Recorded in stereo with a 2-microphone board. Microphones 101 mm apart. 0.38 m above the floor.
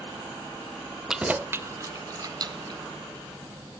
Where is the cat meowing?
No cat meowing in this recording.